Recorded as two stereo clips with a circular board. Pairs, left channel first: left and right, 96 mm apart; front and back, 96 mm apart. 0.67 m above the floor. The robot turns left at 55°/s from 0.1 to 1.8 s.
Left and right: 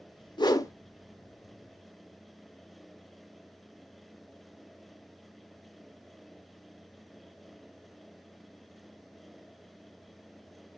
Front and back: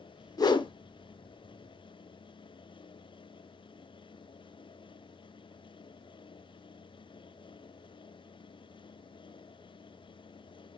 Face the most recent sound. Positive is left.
turn(degrees=-30)